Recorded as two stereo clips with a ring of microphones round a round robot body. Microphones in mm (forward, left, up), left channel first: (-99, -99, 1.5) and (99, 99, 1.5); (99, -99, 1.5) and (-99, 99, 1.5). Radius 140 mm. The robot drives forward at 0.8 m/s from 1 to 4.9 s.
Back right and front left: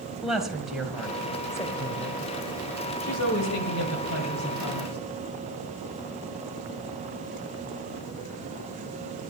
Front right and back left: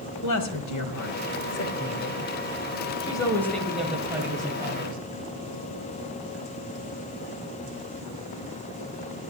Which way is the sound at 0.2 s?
45° right.